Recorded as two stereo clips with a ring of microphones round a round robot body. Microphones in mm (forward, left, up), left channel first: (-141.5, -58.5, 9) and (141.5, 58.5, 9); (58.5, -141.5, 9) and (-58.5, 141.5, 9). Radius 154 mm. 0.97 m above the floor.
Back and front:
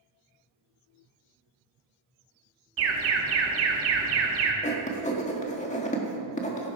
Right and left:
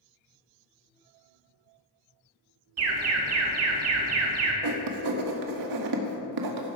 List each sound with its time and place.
2.8 s an alarm: 70° left, 2.0 m
4.6 s writing: 135° left, 1.6 m